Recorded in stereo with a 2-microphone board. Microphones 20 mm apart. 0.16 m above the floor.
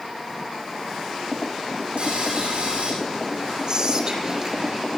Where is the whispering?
40° right (ahead or behind), 3.5 m.